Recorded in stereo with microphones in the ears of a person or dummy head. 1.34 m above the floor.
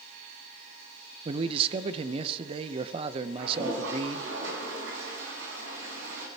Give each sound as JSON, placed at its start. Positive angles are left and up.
{"t": 1.2, "sound": "a man speaking", "side_deg": -30, "distance_m": 0.9}
{"t": 3.4, "sound": "a toilet flushing", "side_deg": -65, "distance_m": 6.0}